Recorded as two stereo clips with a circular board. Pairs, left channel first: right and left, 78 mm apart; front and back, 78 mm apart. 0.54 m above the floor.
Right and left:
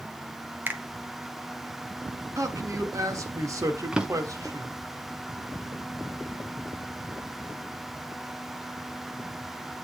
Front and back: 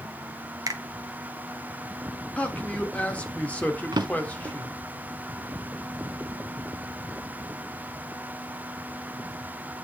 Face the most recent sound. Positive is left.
turn(degrees=170)